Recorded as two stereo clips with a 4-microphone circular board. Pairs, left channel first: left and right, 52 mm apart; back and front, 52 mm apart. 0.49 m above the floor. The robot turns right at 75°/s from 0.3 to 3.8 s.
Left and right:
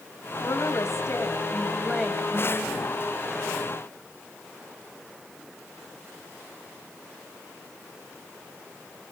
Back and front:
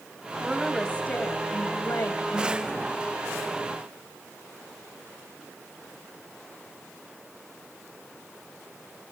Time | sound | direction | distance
0.4 | a woman speaking | 70° left | 2.5 m